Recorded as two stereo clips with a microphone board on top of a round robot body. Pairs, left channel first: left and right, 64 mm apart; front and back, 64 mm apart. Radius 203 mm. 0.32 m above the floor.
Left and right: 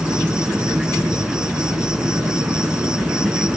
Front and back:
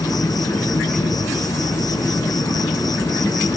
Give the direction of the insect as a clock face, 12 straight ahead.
12 o'clock.